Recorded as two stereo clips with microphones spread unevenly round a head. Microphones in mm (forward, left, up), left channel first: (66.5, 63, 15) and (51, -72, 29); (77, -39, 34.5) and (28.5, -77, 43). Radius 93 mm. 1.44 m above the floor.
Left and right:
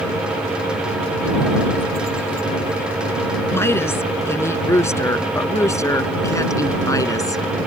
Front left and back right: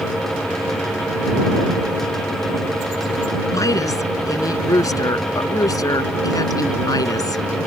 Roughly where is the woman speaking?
Ahead.